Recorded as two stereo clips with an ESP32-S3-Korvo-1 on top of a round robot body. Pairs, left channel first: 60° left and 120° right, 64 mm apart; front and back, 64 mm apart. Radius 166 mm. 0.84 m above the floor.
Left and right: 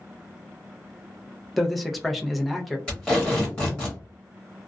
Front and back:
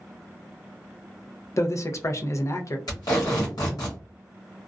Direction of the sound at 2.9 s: 20° right.